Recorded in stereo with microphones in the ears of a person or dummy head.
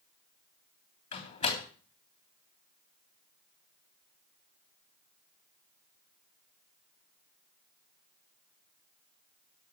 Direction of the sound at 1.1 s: 45° left (ahead or behind).